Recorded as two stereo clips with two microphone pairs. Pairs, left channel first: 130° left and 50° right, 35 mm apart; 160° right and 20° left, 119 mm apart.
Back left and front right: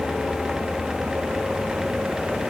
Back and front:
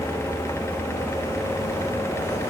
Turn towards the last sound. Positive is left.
No sound to turn to.